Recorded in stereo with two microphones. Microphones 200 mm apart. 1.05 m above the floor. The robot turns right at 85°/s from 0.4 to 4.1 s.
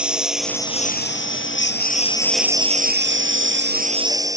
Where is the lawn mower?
5° right (ahead or behind); by 4.4 s 15° right (ahead or behind).